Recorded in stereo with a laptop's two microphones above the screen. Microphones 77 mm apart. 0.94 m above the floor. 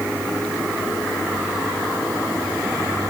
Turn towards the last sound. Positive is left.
No sound to turn to.